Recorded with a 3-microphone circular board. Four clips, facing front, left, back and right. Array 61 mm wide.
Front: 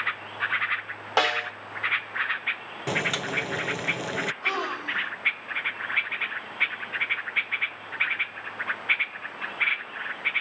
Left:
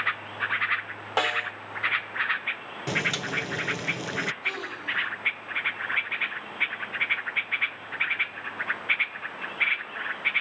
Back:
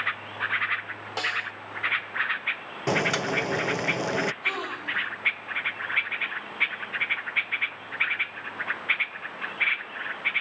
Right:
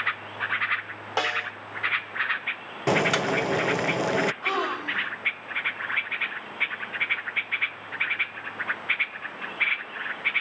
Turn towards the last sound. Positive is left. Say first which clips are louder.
# right 5 dB, front 2 dB
turn(degrees=-80)